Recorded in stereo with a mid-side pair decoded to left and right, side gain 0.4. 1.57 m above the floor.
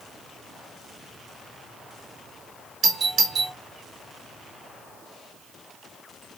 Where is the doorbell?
60° right, 1.0 m.